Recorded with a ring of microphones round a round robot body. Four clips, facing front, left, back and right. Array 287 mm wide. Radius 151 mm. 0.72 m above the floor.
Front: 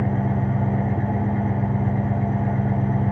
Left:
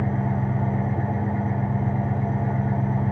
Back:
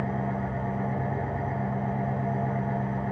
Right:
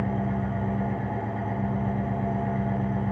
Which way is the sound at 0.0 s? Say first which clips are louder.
Left 2 dB, front 6 dB; 10° left.